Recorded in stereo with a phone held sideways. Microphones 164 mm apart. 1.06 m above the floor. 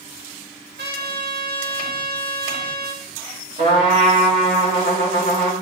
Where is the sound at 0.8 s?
90° right, 1.6 m.